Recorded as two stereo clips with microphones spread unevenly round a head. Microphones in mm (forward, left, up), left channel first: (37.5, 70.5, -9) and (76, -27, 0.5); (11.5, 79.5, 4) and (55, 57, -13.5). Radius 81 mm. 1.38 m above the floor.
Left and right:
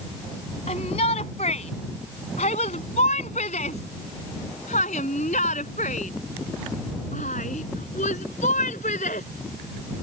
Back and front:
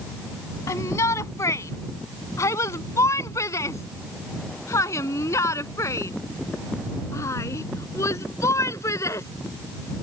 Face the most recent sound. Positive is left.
turn(degrees=160)